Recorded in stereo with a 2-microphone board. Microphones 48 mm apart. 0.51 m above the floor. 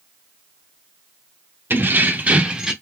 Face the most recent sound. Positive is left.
turn(degrees=-10)  # may be behind; listen again after turning